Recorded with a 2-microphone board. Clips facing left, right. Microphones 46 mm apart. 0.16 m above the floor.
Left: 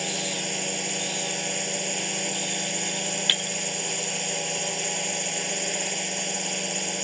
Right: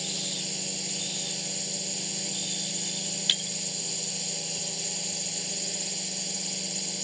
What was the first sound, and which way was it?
A drone, 50° left (ahead or behind).